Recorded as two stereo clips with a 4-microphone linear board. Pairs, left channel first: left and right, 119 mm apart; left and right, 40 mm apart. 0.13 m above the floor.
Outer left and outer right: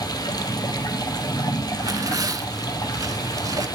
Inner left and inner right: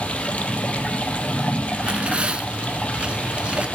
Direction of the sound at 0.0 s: 35° left (ahead or behind).